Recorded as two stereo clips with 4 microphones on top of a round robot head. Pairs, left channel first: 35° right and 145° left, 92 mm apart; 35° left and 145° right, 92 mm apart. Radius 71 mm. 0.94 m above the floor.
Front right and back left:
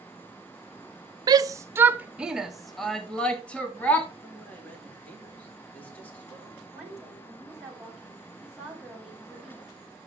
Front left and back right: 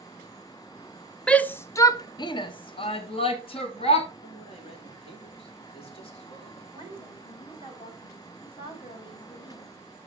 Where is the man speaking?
40° left, 4 m.